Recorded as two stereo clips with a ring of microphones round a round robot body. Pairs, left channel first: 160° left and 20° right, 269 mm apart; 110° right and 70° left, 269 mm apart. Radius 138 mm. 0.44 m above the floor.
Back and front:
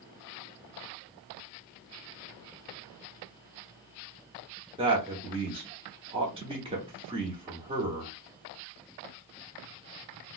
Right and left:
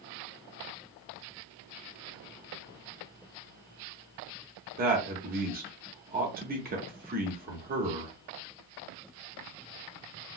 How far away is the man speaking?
About 0.9 m.